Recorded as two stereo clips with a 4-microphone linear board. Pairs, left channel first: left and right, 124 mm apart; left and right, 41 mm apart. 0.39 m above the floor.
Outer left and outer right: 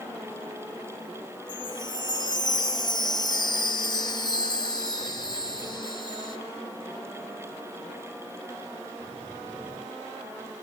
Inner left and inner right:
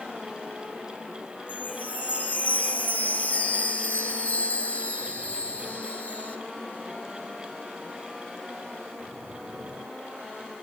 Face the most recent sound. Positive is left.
turn(degrees=35)  # may be behind; listen again after turning